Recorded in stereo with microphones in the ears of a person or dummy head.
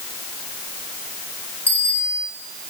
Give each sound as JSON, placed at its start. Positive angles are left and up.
{"t": 1.7, "sound": "a bicycle bell", "side_deg": 10, "distance_m": 4.0}